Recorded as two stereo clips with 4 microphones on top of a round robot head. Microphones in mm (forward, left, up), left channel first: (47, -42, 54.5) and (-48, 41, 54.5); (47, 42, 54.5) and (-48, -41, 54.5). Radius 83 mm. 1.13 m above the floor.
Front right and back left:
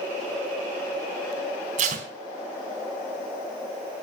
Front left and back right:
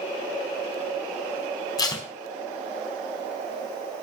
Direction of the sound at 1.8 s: 105° left.